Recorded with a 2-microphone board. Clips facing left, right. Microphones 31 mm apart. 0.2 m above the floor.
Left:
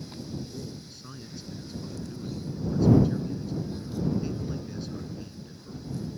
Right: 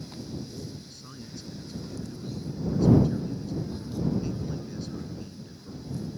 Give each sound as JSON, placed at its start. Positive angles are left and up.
{"t": 0.5, "sound": "a man speaking", "side_deg": 5}